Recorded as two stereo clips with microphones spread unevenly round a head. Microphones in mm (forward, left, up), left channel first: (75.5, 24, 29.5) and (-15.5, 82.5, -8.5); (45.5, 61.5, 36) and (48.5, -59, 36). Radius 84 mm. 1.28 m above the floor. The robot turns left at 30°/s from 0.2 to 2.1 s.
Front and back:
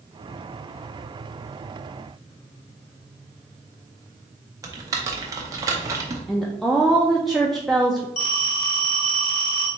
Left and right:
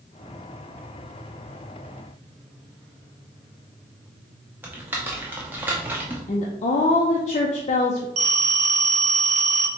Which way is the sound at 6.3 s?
65° left.